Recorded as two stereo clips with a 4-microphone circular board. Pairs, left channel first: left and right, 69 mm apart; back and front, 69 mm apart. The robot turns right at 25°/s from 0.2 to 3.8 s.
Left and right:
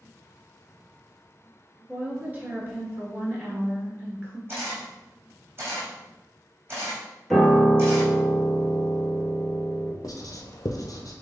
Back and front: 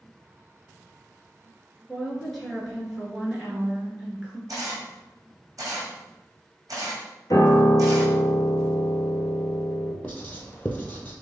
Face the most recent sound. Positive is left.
turn(degrees=115)